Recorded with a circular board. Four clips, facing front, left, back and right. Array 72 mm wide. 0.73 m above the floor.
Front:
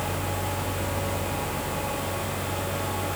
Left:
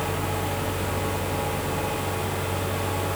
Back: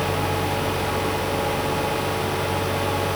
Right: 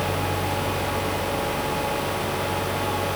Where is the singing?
I don't hear singing.